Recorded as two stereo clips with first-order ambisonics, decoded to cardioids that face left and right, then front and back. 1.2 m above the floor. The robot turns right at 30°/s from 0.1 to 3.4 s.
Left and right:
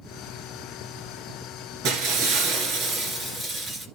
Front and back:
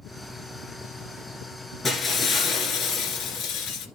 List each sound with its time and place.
1.8 s breaking glass: 80° right, 2.0 m; by 3.9 s 35° right, 2.0 m